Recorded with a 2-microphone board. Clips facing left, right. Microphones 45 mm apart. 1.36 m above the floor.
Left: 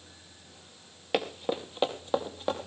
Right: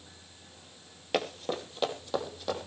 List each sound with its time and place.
1.1 s running footsteps: 10° left (ahead or behind), 1.9 m; by 2.7 s 35° left (ahead or behind), 3.5 m